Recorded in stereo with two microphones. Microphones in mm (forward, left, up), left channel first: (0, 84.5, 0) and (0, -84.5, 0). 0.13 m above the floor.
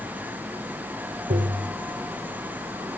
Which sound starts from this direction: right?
Tapping, at 1.3 s.